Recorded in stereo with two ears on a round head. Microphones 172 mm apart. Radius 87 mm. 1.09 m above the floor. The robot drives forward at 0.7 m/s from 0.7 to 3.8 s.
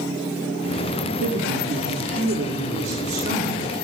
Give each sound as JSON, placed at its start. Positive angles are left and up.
{"t": 1.2, "sound": "a woman speaking", "side_deg": -85, "distance_m": 2.0}